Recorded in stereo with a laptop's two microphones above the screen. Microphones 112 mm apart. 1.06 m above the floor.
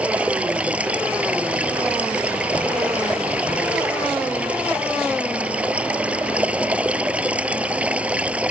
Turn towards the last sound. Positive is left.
turn(degrees=-10)  # may be behind; listen again after turning